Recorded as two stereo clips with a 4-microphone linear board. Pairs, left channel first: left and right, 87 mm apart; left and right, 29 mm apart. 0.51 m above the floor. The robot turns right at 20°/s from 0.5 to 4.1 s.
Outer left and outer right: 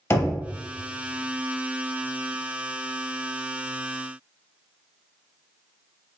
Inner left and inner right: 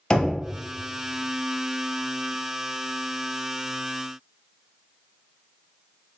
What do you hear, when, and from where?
0.1 s knocking: 30° left (ahead or behind), 0.8 m